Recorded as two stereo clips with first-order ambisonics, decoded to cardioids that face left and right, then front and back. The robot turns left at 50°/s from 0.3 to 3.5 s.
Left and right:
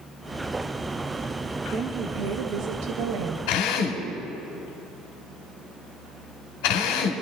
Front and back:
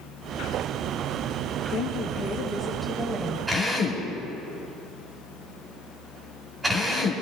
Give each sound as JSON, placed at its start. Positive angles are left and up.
{"t": 1.7, "sound": "a woman speaking", "azimuth_deg": -30, "distance_m": 1.3}
{"t": 3.5, "sound": "a drill", "azimuth_deg": 100, "distance_m": 2.0}